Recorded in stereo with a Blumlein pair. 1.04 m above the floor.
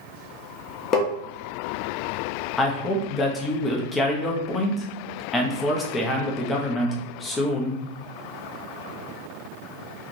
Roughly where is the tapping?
Ahead left.